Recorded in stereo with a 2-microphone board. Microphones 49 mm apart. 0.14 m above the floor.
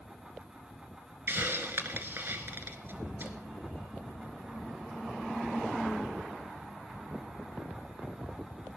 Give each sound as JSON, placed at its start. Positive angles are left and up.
{"t": 1.3, "sound": "a hiss", "side_deg": -45, "distance_m": 1.5}